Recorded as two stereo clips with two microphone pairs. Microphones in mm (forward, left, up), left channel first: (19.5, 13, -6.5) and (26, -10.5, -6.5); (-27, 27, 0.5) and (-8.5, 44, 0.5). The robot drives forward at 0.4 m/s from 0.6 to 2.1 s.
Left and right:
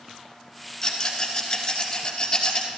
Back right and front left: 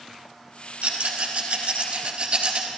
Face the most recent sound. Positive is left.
turn(degrees=75)